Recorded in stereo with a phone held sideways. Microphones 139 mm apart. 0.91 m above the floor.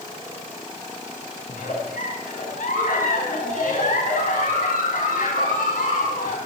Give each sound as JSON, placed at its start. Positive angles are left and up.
{"t": 1.5, "sound": "a giggle", "side_deg": 85, "distance_m": 4.5}